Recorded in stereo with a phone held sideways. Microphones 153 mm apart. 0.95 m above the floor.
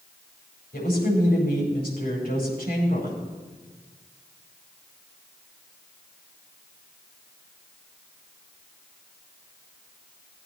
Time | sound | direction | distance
0.7 | a woman speaking | 80° left | 4.5 m